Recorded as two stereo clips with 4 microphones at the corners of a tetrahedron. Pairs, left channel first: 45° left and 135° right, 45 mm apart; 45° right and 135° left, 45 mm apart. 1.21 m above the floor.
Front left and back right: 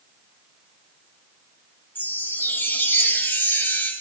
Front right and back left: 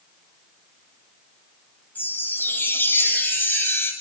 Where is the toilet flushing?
I don't hear a toilet flushing.